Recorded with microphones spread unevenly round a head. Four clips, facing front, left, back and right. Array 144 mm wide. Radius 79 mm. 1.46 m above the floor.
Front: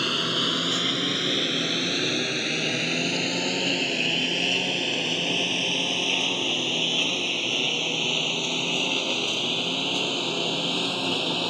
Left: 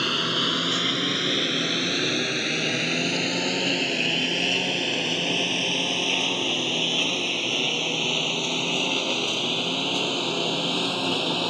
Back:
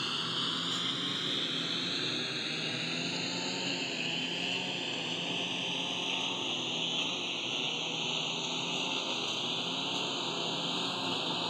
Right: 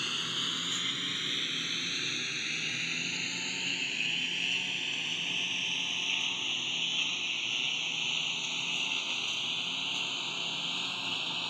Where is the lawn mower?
50° left; by 11.5 s 60° left.